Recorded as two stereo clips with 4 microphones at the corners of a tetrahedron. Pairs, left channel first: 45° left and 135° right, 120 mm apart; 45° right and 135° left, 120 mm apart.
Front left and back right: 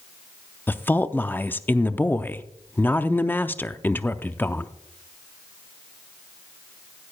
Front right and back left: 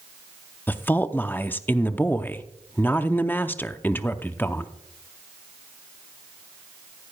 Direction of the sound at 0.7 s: 5° right.